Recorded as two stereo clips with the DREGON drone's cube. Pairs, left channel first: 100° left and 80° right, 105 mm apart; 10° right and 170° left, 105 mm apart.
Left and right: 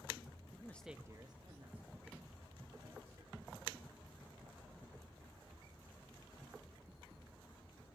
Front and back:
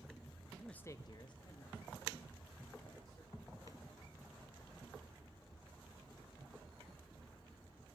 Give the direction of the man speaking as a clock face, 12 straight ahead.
9 o'clock.